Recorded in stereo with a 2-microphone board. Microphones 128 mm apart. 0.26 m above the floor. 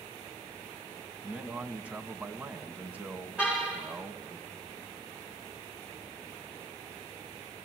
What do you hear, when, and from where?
1.2 s a man speaking: 10° right (ahead or behind), 1.7 m
3.4 s a car horn: 10° right (ahead or behind), 8 m